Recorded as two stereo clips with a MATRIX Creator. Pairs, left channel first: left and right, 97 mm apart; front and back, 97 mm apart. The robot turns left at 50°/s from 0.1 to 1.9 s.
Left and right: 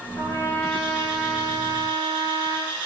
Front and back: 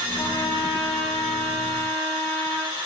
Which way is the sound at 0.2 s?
45° left.